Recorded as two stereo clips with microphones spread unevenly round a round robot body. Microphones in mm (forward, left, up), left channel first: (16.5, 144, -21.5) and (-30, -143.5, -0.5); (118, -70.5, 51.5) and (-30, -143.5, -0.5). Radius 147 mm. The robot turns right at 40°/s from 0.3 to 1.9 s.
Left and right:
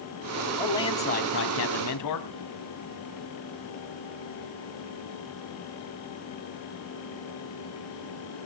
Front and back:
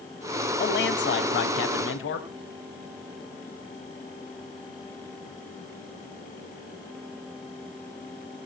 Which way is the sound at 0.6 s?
5° right.